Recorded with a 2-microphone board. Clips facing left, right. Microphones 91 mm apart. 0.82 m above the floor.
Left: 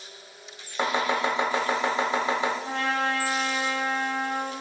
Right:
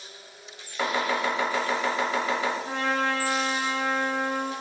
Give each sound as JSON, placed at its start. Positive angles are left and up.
{"t": 0.8, "sound": "chopping", "side_deg": 25, "distance_m": 0.9}
{"t": 2.6, "sound": "a trumpet", "side_deg": 65, "distance_m": 1.8}